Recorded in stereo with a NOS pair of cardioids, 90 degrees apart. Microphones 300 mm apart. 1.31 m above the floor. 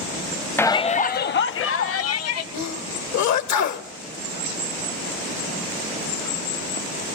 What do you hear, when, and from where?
0.6 s a shout: 5° left, 0.5 m; by 2.4 s 55° left, 1.2 m
2.5 s a sneeze: 65° left, 1.2 m